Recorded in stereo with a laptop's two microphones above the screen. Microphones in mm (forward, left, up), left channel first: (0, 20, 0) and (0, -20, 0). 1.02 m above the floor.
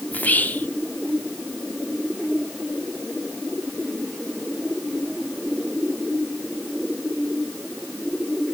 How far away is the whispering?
About 0.8 m.